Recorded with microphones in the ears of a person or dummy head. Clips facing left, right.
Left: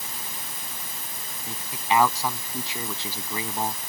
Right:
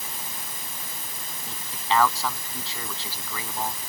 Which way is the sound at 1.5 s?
25° left (ahead or behind).